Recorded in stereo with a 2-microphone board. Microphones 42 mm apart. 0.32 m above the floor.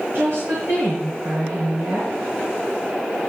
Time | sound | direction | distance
0.1 | a woman speaking | 70° right (ahead or behind) | 4 m